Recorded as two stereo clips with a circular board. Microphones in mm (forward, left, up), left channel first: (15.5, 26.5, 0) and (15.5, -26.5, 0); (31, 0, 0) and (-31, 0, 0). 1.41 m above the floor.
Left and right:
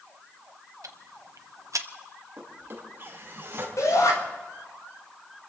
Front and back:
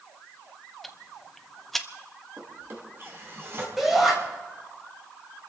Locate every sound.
0.8 s ticking: 85° right, 0.8 m
2.4 s a drawer: 130° right, 4 m
3.8 s a shout: 95° left, 8.5 m